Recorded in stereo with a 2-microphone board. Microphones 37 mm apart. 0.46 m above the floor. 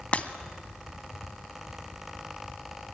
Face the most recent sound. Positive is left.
turn(degrees=35)  # may be behind; listen again after turning